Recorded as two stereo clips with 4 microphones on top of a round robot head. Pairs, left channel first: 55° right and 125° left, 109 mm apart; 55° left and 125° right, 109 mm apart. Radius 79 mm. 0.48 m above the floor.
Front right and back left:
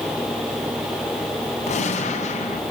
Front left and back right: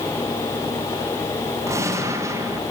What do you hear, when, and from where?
1.7 s a gunshot: 65° right, 4 m